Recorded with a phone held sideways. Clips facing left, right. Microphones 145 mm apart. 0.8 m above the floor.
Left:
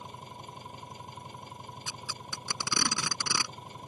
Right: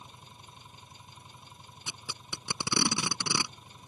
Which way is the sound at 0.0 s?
65° left (ahead or behind).